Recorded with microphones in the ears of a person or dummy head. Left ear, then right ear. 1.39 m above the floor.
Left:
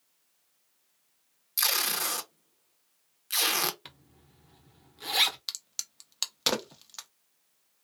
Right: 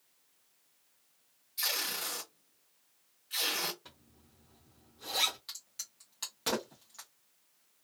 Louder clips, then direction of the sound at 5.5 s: Left 8 dB; 45° left (ahead or behind).